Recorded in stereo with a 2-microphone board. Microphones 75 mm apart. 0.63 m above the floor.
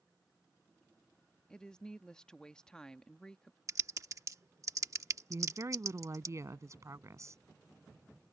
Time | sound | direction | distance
1.5 | a woman speaking | 10° left (ahead or behind) | ?
3.7 | typing on a keyboard | 45° right (ahead or behind) | ?
5.3 | a woman speaking | 45° right (ahead or behind) | ?